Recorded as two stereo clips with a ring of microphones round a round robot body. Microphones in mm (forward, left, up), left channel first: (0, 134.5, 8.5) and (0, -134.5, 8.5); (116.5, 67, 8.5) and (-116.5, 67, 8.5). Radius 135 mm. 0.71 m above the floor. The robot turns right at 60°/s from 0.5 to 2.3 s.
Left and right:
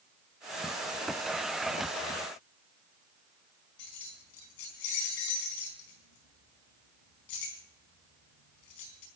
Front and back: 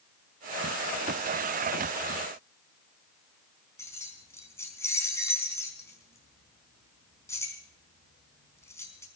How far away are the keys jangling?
About 4 m.